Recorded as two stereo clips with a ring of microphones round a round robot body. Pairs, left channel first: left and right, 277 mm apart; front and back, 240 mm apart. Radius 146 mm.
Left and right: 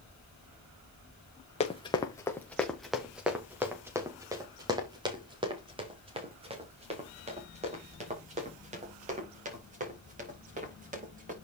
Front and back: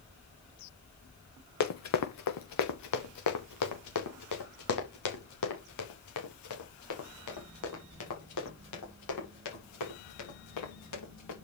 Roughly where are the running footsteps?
Ahead.